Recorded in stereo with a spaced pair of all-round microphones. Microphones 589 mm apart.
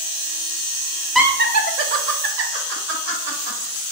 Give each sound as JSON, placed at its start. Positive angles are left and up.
{"t": 1.1, "sound": "laughter", "side_deg": 0, "distance_m": 0.6}